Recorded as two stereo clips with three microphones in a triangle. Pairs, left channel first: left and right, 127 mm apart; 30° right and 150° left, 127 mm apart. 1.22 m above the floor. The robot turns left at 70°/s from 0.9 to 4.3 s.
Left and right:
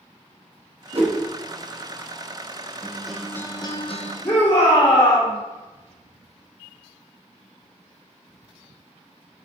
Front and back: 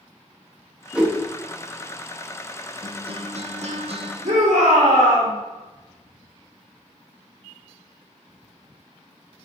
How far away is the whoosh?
About 1.4 m.